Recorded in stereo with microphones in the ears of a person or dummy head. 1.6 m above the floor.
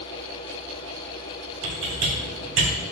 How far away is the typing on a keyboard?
About 1.5 m.